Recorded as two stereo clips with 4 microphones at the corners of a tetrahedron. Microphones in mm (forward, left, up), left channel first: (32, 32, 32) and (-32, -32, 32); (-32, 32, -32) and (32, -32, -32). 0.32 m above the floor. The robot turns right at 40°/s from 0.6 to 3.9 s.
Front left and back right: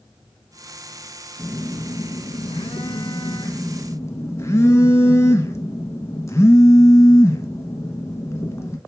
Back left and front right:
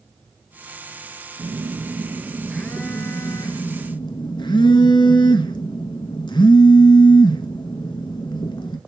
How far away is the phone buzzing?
About 0.9 m.